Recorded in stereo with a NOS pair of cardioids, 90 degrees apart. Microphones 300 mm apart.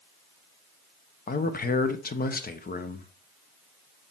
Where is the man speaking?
30° left, 1.2 m.